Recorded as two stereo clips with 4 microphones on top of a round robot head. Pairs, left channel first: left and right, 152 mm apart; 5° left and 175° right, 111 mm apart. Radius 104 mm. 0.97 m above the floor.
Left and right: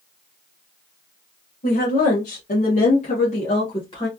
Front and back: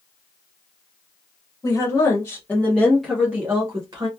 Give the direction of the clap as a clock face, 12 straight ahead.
No clap in this recording.